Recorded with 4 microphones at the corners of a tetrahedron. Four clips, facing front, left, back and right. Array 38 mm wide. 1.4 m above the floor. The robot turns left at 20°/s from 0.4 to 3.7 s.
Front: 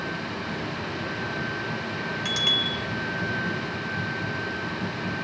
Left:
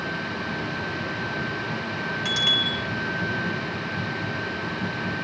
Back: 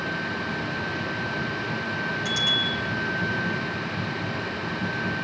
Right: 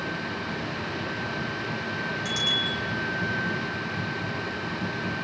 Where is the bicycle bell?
40° left, 4 m; by 2.8 s 30° left, 4 m.